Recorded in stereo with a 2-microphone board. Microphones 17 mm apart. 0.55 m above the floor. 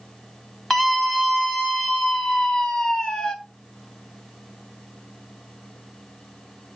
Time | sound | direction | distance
0.7 | a scream | 20° left (ahead or behind) | 3.5 m